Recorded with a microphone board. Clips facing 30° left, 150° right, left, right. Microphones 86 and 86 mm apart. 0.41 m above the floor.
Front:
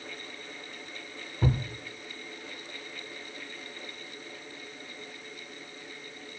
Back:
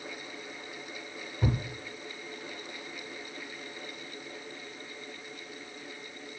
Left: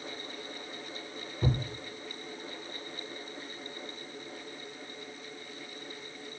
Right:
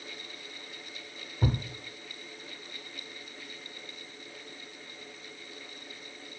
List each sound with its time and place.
1.4 s a thud: 50° right, 0.7 m